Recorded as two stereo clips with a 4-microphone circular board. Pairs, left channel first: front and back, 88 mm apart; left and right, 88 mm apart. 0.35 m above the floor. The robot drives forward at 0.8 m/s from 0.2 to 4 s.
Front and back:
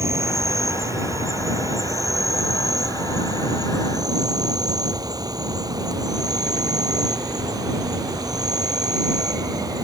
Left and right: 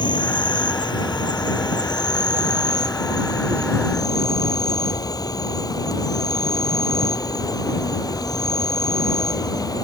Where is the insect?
120° left; by 9.8 s 135° left.